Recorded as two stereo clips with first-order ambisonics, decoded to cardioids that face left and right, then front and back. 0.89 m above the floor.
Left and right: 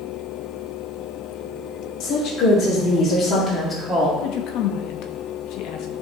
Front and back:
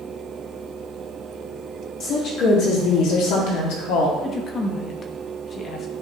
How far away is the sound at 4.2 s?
About 0.9 m.